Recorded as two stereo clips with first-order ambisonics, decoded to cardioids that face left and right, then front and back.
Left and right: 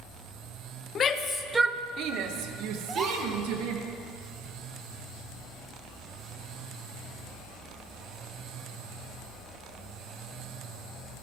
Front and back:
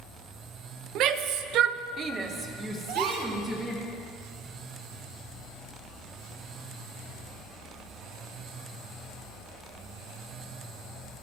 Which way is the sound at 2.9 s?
165° right.